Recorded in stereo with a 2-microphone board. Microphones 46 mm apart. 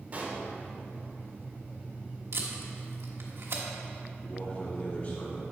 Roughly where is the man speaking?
Left.